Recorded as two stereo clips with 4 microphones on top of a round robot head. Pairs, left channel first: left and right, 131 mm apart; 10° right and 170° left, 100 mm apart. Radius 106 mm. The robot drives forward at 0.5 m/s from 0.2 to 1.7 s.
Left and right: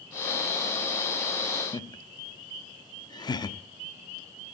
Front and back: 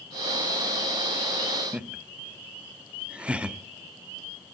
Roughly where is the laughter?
Left.